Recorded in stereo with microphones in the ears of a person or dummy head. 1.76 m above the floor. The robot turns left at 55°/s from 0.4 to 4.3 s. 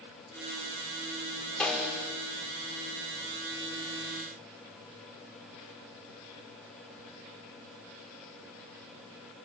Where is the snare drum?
5° left (ahead or behind), 5.5 m; by 2.1 s 20° right (ahead or behind), 5.5 m.